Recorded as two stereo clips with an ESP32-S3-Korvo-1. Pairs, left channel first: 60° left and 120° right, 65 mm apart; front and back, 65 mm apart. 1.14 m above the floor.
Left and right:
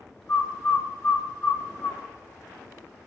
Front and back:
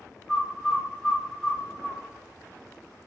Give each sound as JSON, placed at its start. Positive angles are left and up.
{"t": 0.3, "sound": "a bird", "azimuth_deg": 90, "distance_m": 1.0}